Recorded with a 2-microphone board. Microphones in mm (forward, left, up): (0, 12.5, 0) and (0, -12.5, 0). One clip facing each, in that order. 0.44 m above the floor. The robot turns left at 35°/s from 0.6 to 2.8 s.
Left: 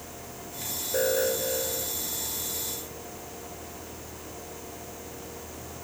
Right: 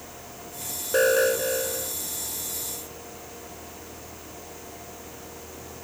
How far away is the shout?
No shout in this recording.